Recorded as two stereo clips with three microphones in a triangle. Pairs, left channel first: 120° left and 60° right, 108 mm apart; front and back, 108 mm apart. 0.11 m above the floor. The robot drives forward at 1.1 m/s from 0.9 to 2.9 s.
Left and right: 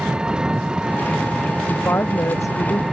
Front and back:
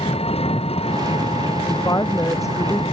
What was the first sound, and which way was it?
An engine running, 20° left.